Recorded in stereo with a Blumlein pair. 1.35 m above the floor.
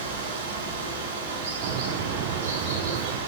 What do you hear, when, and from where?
0.0 s running water: 55° right, 5.5 m
1.6 s a bird: 45° right, 1.1 m